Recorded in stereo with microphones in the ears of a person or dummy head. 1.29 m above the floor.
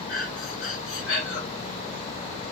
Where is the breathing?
75° left (ahead or behind), 2.5 m.